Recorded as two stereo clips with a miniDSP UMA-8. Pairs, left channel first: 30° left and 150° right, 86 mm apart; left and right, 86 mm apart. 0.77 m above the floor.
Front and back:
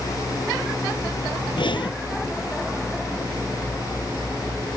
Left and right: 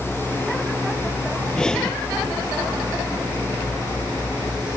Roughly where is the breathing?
Ahead.